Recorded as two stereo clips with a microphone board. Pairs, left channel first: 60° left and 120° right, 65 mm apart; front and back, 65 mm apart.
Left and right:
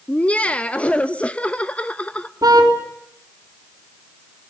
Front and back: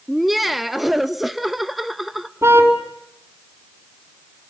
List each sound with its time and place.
0.1 s laughter: 95° left, 0.7 m
2.4 s a car horn: 135° right, 4 m